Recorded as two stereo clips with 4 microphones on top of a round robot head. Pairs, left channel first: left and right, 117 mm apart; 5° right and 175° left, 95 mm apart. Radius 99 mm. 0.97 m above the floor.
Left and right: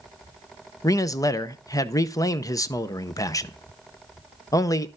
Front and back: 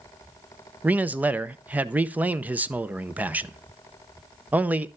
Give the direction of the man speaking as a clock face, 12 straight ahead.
8 o'clock.